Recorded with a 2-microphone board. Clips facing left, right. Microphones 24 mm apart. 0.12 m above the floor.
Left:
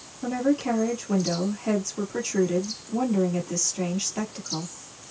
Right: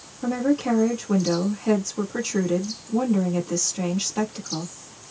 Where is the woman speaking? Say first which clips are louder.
Right 2 dB; centre (ahead or behind), 2.5 m.